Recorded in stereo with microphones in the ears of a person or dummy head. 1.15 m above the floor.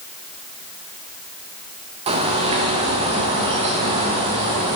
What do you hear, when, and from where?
2.1 s a bird: 30° right (ahead or behind), 0.5 m